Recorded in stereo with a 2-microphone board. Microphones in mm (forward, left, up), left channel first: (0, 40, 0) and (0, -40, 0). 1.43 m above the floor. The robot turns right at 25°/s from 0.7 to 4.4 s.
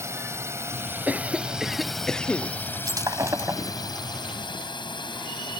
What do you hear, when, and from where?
0.0 s a drone: 35° right (ahead or behind); by 5.6 s 70° left (ahead or behind)
1.1 s a cough: 20° right; by 2.5 s 15° left
2.9 s breaking glass: 50° right (ahead or behind); by 3.7 s 30° right (ahead or behind)